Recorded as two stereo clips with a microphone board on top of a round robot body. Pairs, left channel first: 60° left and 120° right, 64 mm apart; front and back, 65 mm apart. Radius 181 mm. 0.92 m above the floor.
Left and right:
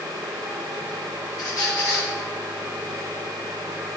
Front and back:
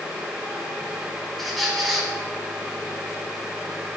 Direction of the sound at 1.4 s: 90° left.